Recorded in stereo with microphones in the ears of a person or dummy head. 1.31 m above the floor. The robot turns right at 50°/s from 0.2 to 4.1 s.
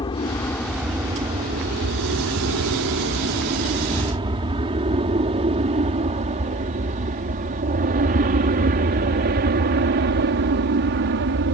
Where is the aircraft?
25° left (ahead or behind); by 11.6 s 60° right (ahead or behind).